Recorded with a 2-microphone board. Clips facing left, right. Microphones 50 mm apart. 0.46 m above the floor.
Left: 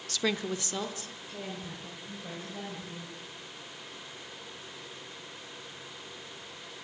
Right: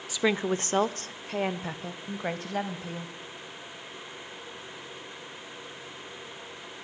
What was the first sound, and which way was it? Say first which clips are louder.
A woman speaking: right 5 dB; 10° right (ahead or behind).